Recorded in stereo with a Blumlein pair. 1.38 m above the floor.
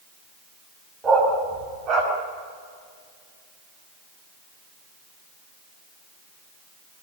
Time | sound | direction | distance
1.0 | a dog barking | 20° right | 4.5 m